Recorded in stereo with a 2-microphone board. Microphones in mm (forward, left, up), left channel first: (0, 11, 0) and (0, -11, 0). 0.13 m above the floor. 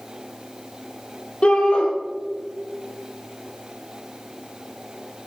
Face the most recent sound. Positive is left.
turn(degrees=55)  # may be behind; listen again after turning